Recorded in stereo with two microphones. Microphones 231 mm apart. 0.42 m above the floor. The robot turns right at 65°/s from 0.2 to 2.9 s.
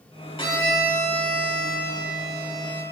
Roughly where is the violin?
Behind left.